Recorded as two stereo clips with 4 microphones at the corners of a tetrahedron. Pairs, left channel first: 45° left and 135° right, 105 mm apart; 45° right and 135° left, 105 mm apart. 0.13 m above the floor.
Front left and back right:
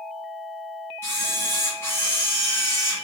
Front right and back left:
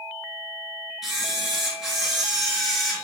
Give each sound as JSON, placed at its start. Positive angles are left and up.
{"t": 1.0, "sound": "a camera shutter", "azimuth_deg": 55, "distance_m": 1.1}